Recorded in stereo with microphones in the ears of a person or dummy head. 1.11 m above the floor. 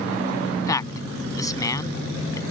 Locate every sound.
0.5 s a man speaking: 20° left (ahead or behind)